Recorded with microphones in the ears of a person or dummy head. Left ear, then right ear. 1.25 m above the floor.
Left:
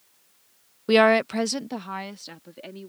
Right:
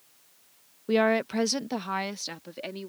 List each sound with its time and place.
0.9 s a woman speaking: 55° left (ahead or behind); by 2.9 s 20° right (ahead or behind)